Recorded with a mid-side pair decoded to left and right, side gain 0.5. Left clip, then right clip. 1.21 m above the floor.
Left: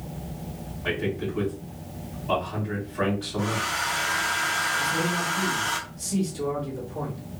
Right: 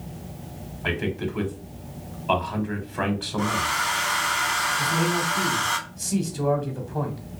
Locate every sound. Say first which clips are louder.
0.8 s a man speaking: right 1 dB; 65° right, 1.0 m
3.4 s a hair dryer: right 4 dB; 55° right, 1.0 m
4.8 s a man speaking: right 2 dB; 70° right, 1.1 m